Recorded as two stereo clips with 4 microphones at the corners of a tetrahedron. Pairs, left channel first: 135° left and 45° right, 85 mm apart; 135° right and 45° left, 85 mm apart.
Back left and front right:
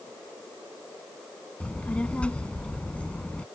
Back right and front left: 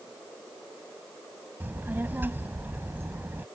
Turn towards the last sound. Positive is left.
turn(degrees=75)